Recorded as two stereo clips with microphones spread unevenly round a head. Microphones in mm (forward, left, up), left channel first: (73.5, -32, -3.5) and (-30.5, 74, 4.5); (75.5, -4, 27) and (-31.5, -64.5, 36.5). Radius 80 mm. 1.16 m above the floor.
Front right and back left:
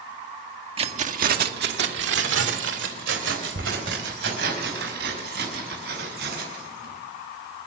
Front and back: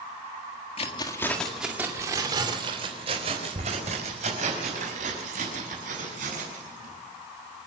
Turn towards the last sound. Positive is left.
turn(degrees=170)